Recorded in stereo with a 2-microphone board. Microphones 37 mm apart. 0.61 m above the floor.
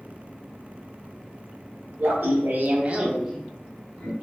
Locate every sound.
2.0 s laughter: 60° right (ahead or behind), 1.5 m; by 4.1 s 30° left (ahead or behind), 1.5 m